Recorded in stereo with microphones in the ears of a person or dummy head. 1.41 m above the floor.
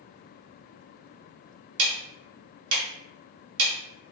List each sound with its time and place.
1.8 s ticking: 70° right (ahead or behind), 0.8 m